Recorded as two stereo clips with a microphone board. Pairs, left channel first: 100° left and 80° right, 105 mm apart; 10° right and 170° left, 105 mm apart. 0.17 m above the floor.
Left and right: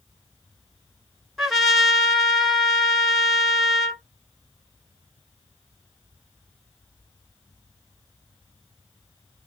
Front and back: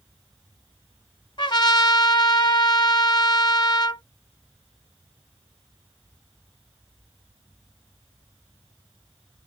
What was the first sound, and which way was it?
A trumpet, 10° left.